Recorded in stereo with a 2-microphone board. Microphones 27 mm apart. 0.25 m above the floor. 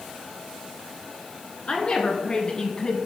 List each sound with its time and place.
1.7 s a woman speaking: 40° left (ahead or behind), 2.5 m; by 3.0 s 25° left (ahead or behind), 1.4 m